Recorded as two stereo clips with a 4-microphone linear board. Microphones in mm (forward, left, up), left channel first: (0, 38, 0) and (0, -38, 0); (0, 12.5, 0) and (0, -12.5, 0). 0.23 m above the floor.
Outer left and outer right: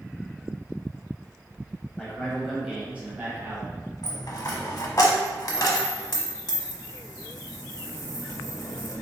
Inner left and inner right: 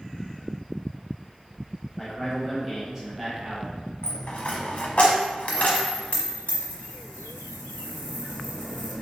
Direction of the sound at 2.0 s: 10° left (ahead or behind).